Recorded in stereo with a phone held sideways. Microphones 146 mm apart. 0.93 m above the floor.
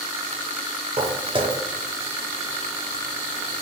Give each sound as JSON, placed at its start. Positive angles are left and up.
{"t": 1.0, "sound": "footsteps", "side_deg": -40, "distance_m": 1.1}